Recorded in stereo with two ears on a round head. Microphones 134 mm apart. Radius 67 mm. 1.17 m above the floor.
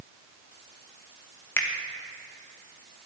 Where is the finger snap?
15° left (ahead or behind), 1.2 m.